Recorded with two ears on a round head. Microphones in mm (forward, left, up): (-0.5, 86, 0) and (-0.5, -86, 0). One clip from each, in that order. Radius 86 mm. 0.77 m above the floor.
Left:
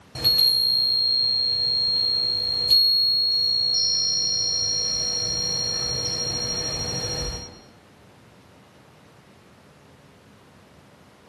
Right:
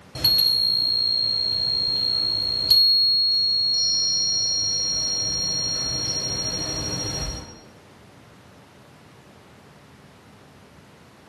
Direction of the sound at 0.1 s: Centre (ahead or behind).